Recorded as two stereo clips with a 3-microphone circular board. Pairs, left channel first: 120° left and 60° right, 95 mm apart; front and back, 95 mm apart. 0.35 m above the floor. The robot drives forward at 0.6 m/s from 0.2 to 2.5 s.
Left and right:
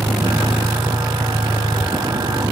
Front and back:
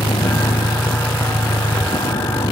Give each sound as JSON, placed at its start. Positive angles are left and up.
{"t": 0.0, "sound": "a vehicle", "azimuth_deg": 0}